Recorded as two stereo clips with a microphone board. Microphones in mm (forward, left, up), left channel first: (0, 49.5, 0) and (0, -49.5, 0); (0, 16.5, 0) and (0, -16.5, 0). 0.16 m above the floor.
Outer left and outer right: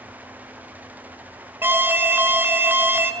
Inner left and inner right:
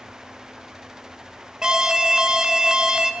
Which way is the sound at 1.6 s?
20° right (ahead or behind).